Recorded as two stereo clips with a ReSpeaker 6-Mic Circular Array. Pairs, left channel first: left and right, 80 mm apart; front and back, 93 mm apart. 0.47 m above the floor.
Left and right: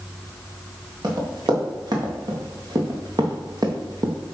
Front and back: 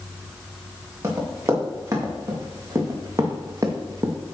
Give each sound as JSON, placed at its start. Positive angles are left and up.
{"t": 1.0, "sound": "running footsteps", "azimuth_deg": -120, "distance_m": 5.5}